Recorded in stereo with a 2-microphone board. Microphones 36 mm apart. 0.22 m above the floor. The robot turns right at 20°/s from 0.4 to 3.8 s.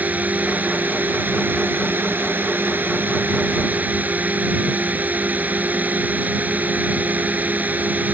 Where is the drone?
125° right; by 8.1 s 60° right.